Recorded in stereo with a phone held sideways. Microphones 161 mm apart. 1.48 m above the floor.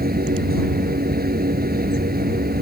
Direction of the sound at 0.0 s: 70° right (ahead or behind).